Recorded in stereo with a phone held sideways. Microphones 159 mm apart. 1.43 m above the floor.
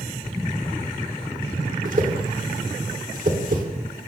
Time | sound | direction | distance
1.9 | a whoosh | 60° right (ahead or behind) | 3 m